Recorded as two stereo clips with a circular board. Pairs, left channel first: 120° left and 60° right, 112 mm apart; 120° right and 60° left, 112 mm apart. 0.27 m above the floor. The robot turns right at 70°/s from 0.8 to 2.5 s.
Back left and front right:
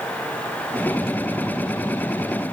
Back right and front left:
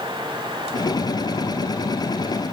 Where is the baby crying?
I don't hear a baby crying.